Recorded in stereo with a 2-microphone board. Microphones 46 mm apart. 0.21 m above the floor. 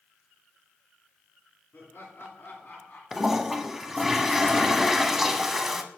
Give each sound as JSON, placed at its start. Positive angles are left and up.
{"t": 1.7, "sound": "laughter", "side_deg": 55, "distance_m": 3.0}
{"t": 3.1, "sound": "a toilet flushing", "side_deg": -5, "distance_m": 0.9}